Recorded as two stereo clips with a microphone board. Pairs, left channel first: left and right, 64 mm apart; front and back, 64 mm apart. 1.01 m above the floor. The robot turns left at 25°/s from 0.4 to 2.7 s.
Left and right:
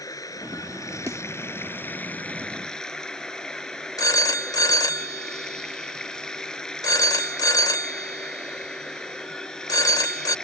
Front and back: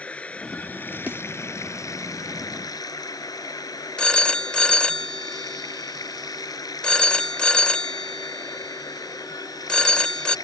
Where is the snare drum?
120° right; by 1.2 s 125° right.